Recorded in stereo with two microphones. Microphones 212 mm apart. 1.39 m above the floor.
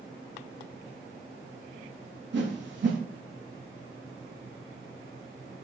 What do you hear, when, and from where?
2.3 s a whoosh: 60° right (ahead or behind), 0.7 m